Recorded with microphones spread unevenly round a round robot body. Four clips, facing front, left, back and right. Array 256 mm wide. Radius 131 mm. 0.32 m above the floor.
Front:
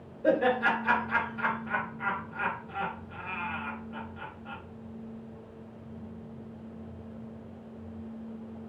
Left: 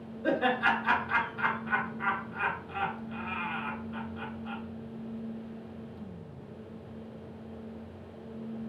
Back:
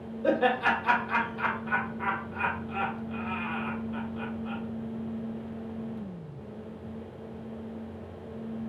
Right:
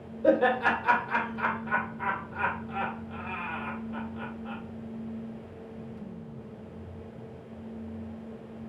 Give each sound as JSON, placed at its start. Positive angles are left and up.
{"t": 0.2, "sound": "laughter", "azimuth_deg": -95, "distance_m": 1.8}